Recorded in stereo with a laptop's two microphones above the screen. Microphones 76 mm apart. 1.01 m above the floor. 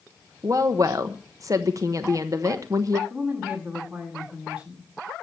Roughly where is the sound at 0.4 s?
Right.